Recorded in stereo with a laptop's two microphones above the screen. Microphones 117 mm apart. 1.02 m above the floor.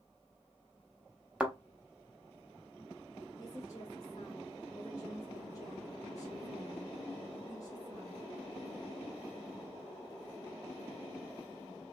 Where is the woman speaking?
30° left (ahead or behind), 1.2 m.